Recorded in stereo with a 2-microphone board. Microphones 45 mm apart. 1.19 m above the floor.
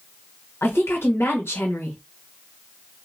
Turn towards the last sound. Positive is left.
turn(degrees=60)  # may be behind; listen again after turning